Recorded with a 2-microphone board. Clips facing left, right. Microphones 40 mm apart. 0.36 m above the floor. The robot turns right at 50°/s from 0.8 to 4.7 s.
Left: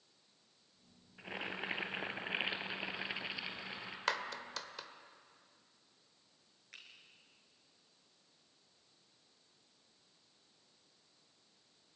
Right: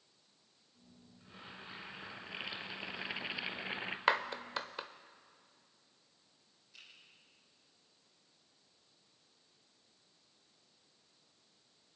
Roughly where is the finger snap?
Left.